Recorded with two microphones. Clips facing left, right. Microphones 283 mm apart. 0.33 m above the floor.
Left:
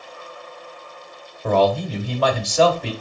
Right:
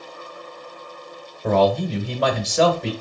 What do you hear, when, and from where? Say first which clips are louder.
1.4 s a man speaking: even; 20° right (ahead or behind), 1.0 m